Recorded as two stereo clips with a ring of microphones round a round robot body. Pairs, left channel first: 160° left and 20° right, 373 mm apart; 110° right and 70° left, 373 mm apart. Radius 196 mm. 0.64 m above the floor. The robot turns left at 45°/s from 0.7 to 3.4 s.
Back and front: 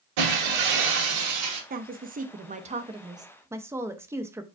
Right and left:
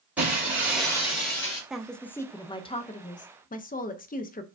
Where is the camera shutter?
No camera shutter in this recording.